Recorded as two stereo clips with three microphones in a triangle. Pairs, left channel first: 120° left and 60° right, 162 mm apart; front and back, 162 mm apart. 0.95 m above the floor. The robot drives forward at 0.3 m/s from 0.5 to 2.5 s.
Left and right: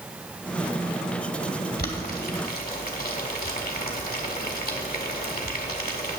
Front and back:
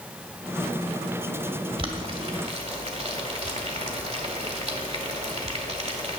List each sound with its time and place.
1.8 s boiling: 125° left, 1.5 m; by 6.2 s 130° left, 1.6 m